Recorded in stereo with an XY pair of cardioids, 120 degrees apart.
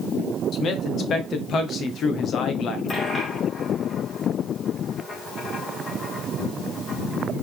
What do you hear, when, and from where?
0.5 s a man speaking: 50° left, 1.9 m
2.9 s a dropped coin: 35° left, 3.5 m